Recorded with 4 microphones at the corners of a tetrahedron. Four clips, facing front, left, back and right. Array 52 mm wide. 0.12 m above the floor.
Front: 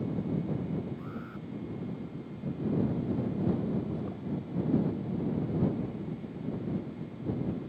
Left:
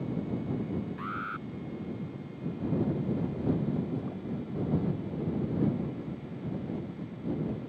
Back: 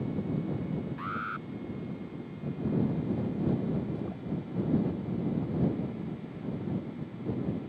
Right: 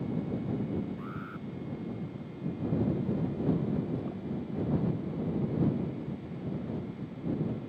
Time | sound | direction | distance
1.0 | an alarm | 145° left | ?